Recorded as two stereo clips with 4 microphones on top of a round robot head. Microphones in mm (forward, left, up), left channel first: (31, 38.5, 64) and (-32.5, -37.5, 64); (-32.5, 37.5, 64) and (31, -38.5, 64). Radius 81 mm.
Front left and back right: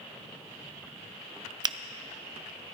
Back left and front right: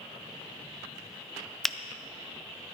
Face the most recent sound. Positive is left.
turn(degrees=-145)